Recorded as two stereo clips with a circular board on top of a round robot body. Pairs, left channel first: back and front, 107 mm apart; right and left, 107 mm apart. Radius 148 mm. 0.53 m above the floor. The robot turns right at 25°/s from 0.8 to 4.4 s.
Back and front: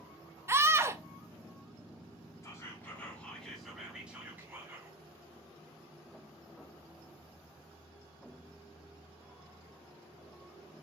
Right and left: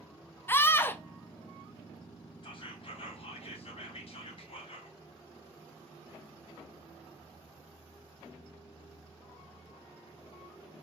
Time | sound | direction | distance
0.5 | a scream | 40° right | 0.7 m
2.4 | whispering | 120° right | 2 m